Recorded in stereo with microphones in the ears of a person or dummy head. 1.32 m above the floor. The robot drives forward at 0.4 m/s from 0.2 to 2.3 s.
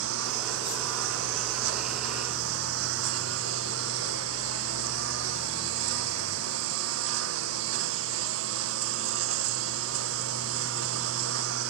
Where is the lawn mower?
80° right.